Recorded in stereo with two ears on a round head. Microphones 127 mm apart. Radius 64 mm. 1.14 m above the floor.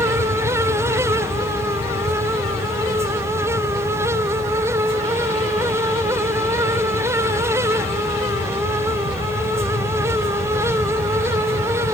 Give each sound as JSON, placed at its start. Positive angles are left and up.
{"t": 0.0, "sound": "an aircraft", "side_deg": 55}